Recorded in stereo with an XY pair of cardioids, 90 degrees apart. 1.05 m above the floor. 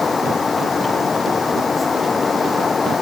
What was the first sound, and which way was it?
A fan, 40° left.